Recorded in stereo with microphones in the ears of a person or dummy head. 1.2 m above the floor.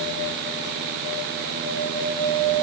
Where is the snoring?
No snoring in this recording.